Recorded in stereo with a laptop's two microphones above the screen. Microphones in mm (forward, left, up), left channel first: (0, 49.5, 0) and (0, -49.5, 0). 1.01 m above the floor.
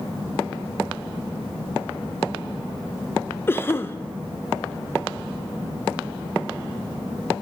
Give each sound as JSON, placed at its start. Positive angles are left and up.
{"t": 3.5, "sound": "a cough", "side_deg": 20, "distance_m": 0.6}